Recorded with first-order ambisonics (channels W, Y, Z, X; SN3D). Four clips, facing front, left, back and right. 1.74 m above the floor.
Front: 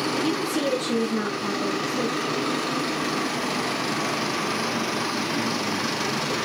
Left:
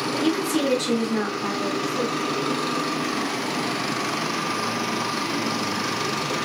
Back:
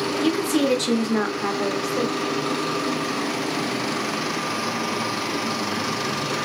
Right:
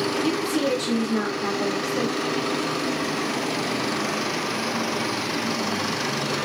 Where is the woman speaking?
140° left, 1.0 m; by 2.2 s 155° right, 1.3 m.